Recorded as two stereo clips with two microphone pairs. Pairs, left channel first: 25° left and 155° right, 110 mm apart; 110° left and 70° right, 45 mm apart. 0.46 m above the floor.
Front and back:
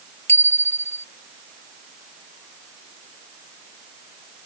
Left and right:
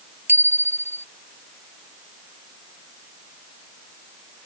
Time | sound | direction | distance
0.3 | a bicycle bell | 45° right | ?